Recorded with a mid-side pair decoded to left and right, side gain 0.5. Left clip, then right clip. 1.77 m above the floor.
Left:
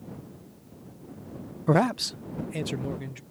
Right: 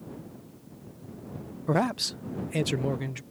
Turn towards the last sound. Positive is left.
turn(degrees=-35)